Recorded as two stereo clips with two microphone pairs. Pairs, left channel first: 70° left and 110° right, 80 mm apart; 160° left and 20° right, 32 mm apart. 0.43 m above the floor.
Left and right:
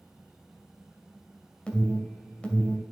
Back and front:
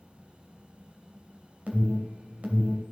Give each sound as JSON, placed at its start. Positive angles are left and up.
{"t": 1.7, "sound": "an alarm", "azimuth_deg": -5, "distance_m": 2.5}